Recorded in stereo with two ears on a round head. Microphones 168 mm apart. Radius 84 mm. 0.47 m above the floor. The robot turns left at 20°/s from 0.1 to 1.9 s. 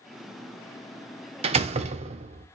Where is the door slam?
30° right (ahead or behind), 0.5 m; by 2.5 s 35° right (ahead or behind), 0.5 m.